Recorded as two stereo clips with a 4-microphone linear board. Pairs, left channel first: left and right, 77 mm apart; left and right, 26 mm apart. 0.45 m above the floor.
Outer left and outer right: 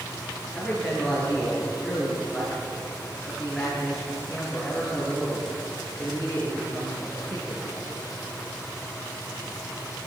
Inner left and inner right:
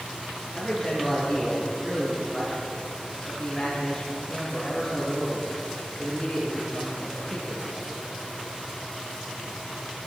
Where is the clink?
No clink in this recording.